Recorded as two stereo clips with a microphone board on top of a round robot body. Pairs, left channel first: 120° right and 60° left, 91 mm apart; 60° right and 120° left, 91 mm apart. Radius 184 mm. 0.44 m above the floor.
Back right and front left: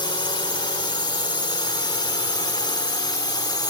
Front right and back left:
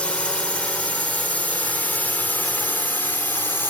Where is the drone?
135° right; by 3.7 s 115° right.